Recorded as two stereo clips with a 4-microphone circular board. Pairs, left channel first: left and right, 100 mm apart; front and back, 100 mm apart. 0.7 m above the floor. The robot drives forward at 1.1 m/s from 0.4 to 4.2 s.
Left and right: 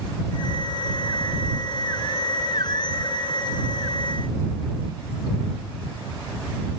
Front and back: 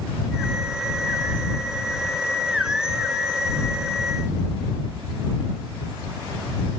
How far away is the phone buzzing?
I don't hear a phone buzzing.